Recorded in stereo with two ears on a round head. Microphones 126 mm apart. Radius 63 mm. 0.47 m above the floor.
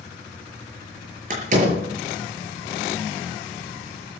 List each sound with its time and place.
1.3 s a door slam: 55° right (ahead or behind), 6.5 m